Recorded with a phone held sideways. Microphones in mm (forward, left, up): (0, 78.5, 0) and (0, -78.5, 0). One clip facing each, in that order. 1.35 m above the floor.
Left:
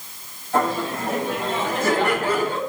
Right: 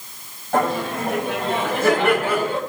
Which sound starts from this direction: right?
Laughter, at 0.5 s.